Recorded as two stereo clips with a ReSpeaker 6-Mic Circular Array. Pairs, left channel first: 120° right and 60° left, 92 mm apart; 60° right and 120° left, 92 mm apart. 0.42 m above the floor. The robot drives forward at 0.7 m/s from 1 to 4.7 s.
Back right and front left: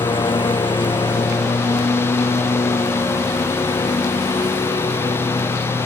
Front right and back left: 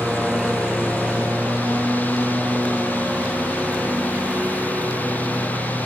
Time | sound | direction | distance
0.0 | a lawn mower | 155° right | ?